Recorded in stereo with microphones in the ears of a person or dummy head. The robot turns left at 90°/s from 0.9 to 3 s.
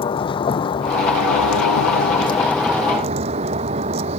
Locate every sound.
0.0 s a vehicle: 160° left; by 4.2 s 30° right